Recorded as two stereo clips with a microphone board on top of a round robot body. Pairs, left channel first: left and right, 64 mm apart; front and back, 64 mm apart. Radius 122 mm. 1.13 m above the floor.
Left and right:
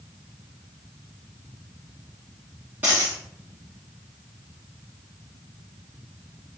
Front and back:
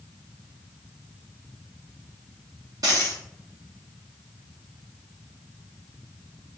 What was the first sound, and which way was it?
A dropped coin, 160° right.